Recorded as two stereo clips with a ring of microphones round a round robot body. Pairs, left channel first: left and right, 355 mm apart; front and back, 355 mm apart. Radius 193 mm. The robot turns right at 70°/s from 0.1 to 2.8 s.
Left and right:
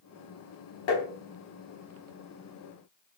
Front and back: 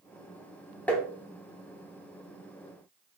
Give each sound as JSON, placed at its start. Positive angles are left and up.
{"t": 0.9, "sound": "tapping", "azimuth_deg": 85, "distance_m": 0.9}